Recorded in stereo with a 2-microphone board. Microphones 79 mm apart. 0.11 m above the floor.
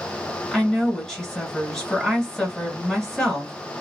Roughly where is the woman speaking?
Centre.